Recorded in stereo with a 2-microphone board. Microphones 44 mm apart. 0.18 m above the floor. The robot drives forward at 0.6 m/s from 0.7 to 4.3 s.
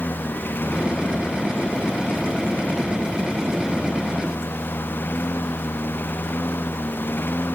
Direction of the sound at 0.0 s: 50° left (ahead or behind).